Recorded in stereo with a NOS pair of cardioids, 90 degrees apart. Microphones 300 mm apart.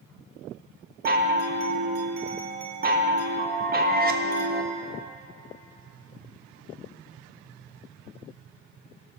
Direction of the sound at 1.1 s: 30° right.